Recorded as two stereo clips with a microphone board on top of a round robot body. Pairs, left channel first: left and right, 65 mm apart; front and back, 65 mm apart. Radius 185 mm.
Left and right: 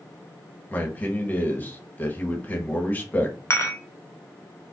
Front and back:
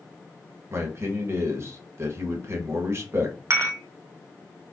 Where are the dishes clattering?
135° left, 1.0 m.